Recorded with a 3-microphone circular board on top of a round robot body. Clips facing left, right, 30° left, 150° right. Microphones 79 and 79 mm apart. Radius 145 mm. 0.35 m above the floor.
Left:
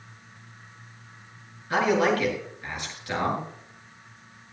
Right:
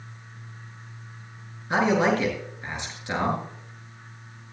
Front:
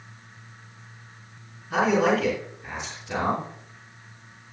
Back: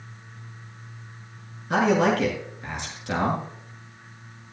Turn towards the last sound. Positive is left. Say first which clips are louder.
# right 1 dB, back 1 dB
turn(degrees=-155)